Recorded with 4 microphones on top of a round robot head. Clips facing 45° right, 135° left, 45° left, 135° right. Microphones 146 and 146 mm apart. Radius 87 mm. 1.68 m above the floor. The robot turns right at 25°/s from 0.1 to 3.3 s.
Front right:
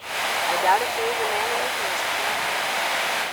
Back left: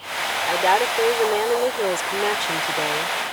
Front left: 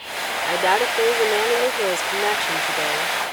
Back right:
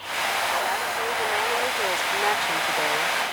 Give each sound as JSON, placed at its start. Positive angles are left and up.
{"t": 0.5, "sound": "a woman speaking", "azimuth_deg": 65}